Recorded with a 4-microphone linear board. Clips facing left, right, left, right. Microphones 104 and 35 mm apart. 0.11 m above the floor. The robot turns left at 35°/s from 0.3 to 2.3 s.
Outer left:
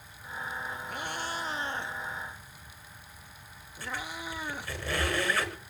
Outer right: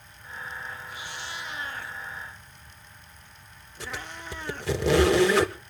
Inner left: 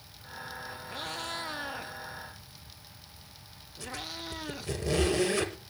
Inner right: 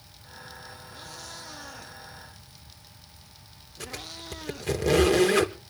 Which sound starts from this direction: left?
A cat meowing, at 0.9 s.